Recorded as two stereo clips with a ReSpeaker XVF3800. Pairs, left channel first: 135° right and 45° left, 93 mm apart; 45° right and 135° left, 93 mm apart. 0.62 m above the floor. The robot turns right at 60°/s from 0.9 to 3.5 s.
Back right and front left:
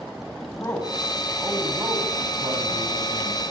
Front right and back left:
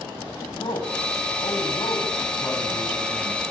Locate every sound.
0.5 s a man speaking: 75° right, 5 m; by 3.4 s 75° left, 5 m